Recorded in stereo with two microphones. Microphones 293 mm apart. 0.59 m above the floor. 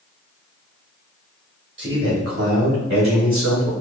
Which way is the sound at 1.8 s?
40° right (ahead or behind).